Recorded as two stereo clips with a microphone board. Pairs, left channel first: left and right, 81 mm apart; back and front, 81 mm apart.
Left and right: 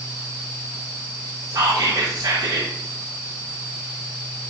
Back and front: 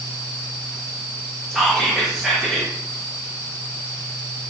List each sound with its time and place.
1.5 s whispering: 90° right, 0.5 m